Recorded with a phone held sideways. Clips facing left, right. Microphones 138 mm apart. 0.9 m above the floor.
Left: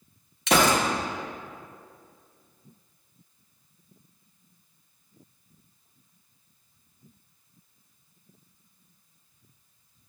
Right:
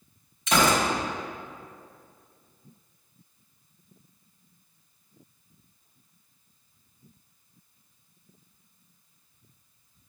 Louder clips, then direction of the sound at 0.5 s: Left 1 dB; 75° left (ahead or behind).